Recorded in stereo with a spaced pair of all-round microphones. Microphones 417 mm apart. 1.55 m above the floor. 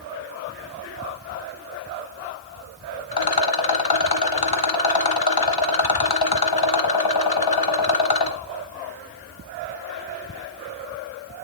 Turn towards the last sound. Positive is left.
turn(degrees=60)  # may be behind; listen again after turning